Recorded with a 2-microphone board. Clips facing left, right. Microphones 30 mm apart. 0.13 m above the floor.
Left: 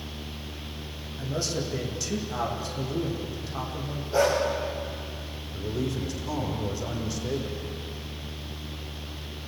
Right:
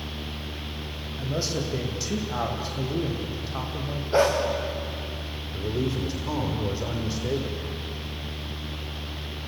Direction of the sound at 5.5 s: 25° right (ahead or behind).